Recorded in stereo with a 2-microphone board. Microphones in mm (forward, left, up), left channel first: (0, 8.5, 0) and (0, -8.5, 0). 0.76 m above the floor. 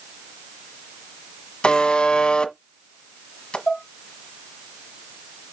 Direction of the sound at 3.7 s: 30° left (ahead or behind).